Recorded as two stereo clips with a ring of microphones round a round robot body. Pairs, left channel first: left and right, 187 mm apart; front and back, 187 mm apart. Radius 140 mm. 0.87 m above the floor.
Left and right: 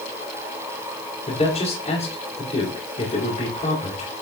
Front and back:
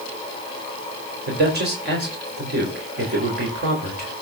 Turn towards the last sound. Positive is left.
turn(degrees=155)